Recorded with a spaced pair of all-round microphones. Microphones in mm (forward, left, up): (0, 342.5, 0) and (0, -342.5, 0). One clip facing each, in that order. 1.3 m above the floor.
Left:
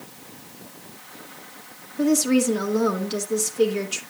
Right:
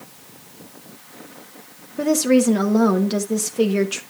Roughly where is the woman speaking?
Right.